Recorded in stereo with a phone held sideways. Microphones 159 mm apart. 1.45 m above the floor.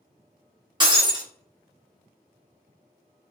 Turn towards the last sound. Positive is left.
turn(degrees=-30)  # may be behind; listen again after turning